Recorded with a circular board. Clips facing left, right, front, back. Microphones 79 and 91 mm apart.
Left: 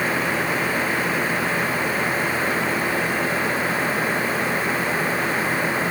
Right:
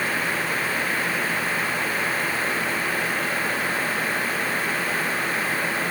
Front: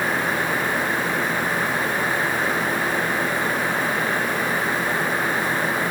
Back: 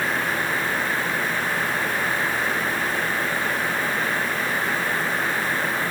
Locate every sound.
Only background noise.